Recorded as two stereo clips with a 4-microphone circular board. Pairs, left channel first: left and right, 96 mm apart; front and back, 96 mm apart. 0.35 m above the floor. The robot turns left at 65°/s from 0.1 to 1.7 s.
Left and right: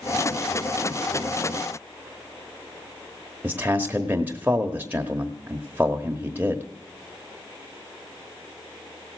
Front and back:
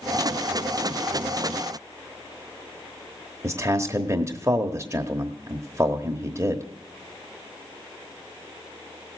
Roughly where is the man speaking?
Behind right.